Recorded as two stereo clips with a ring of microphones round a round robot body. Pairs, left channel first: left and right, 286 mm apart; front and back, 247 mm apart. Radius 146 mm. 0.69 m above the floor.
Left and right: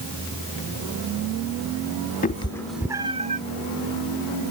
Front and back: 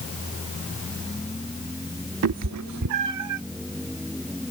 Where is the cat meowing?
155° left; by 3.4 s 155° right.